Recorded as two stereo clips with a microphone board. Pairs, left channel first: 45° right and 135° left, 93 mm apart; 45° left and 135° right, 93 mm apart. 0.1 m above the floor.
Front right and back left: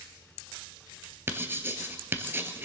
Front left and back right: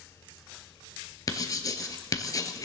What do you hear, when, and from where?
1.3 s writing: 80° left, 1.7 m